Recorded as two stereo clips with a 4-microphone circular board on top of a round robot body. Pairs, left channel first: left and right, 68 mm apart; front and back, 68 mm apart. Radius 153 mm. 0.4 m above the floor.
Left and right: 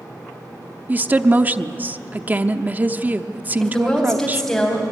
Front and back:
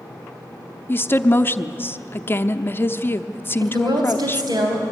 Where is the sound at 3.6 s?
170° left, 3.5 m.